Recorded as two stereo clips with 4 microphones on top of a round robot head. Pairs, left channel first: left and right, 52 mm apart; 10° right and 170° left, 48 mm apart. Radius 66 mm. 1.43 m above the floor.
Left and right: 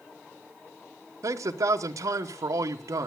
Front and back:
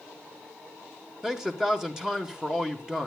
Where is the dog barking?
No dog barking in this recording.